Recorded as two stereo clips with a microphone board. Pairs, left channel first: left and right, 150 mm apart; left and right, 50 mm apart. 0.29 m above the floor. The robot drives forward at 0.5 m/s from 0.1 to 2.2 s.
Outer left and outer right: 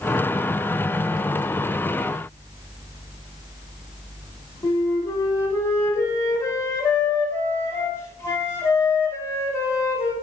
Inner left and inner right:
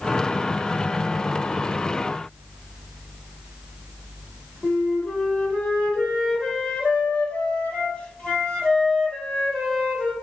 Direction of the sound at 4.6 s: 20° left (ahead or behind).